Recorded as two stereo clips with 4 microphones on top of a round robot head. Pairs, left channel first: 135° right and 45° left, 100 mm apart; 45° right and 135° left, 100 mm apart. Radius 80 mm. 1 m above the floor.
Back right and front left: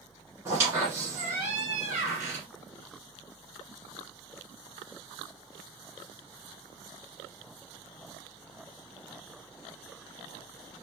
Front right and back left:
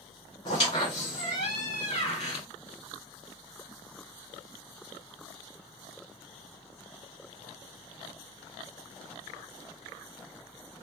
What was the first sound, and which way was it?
A squeak, 15° right.